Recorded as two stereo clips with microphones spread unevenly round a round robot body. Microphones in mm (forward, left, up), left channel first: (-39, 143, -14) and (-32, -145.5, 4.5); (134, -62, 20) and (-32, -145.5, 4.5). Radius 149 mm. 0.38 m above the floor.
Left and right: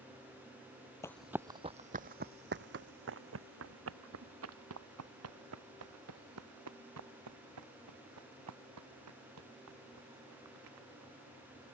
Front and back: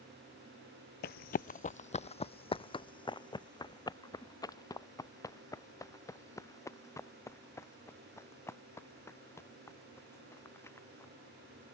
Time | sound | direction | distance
1.0 | running footsteps | 10° left | ?